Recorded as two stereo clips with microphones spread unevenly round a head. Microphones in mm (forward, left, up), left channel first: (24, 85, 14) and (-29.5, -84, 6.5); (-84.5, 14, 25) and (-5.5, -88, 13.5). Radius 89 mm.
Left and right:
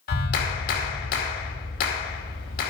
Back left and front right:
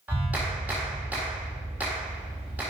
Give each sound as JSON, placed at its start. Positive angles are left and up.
{"t": 0.1, "sound": "a clap", "azimuth_deg": 30, "distance_m": 2.0}